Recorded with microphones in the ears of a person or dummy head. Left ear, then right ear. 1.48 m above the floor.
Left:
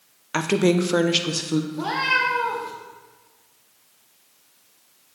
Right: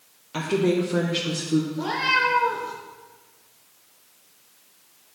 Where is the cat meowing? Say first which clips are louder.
Left 2 dB; 40° left (ahead or behind), 1.1 m.